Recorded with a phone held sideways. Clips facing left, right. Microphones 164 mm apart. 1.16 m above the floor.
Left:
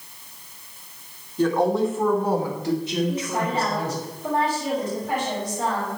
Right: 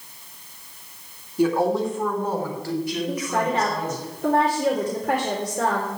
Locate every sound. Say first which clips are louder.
1.4 s a woman speaking: even; 10° right (ahead or behind), 3 m; by 4.0 s 35° left (ahead or behind), 5.5 m
3.1 s a woman speaking: right 1 dB; 75° right (ahead or behind), 3.5 m